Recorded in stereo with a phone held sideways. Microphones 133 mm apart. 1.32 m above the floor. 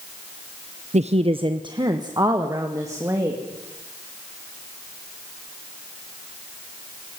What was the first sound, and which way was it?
A woman speaking, 55° right (ahead or behind).